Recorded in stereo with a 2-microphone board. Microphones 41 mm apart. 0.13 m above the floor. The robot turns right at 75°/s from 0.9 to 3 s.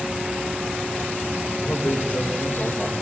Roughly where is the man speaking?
Ahead left.